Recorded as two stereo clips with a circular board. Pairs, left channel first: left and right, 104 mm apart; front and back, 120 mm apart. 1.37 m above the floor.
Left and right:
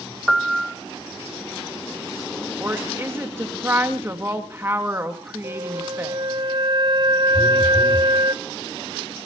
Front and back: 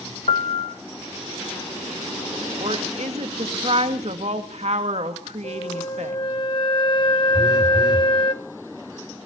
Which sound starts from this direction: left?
A phone buzzing, at 7.3 s.